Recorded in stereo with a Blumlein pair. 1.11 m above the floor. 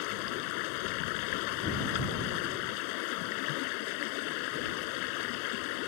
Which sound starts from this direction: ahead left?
Running water, at 0.0 s.